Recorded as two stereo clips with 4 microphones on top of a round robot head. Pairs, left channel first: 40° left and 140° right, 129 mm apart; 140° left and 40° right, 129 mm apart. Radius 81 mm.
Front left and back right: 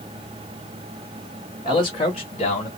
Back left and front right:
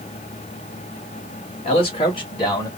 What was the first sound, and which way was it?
A man speaking, 95° left.